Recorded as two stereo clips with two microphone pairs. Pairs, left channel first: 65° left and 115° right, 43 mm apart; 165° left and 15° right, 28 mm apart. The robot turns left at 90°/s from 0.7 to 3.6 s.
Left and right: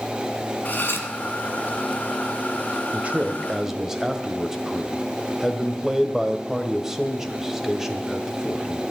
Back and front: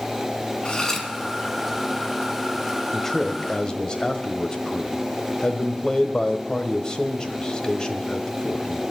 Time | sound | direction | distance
0.7 | cutlery clinking | 110° left | 1.9 m
2.9 | a man speaking | 125° right | 1.4 m